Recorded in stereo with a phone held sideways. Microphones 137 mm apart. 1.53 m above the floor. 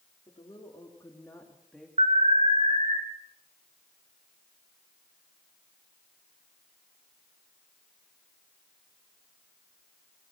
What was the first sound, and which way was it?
A woman speaking, 35° left (ahead or behind).